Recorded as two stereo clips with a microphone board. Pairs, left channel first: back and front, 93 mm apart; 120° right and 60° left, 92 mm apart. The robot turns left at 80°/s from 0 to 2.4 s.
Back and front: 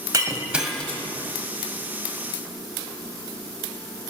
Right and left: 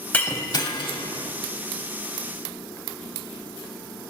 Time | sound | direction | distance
0.1 | breaking glass | 45° right | 1.7 m